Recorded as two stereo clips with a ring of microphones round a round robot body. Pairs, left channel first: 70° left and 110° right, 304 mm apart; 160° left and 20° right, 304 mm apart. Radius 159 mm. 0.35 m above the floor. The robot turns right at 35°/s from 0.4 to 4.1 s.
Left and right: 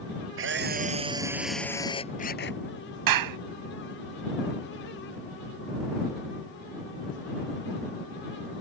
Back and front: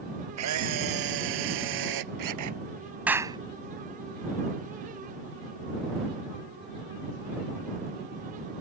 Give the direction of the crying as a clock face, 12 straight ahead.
No crying in this recording.